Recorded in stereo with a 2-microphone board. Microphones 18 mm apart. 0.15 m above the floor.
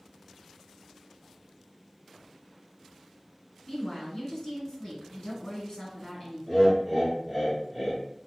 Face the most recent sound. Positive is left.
turn(degrees=10)  # may be behind; listen again after turning